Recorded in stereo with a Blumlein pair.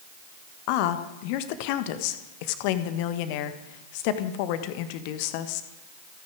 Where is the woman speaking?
45° left, 1.5 m.